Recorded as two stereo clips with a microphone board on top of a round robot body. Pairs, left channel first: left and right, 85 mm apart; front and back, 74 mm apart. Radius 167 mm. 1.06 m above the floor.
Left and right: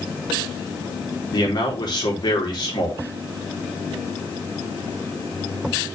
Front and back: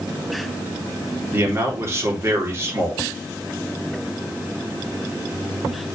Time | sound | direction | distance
1.3 | a man speaking | 125° left | 3 m